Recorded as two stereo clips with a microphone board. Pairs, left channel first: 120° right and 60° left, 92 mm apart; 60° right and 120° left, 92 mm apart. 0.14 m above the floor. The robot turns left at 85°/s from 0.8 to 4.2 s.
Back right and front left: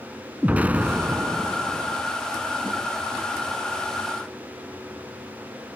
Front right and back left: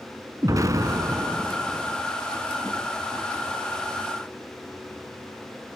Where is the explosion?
120° left, 0.6 m; by 2.0 s 20° left, 0.6 m.